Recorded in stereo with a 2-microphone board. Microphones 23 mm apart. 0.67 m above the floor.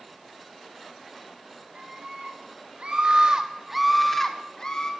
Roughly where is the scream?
Right.